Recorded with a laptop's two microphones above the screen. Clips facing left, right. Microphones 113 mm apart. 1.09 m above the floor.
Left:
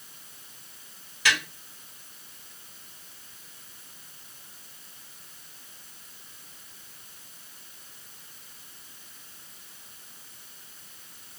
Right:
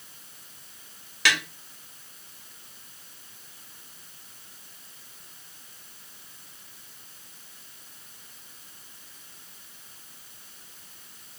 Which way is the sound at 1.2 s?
80° right.